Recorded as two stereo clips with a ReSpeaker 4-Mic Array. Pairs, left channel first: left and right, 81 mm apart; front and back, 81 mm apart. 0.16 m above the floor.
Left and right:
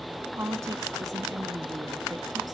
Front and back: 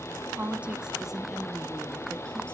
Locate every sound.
0.3 s a woman speaking: 120° right, 1.7 m; by 2.5 s 70° right, 2.5 m